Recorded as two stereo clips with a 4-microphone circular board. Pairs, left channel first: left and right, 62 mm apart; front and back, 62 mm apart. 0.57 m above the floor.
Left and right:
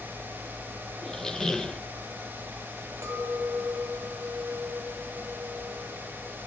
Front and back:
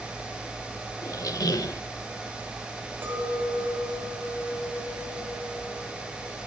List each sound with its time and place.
1.0 s a squeak: 10° left, 0.5 m
3.0 s a clink: 125° right, 2 m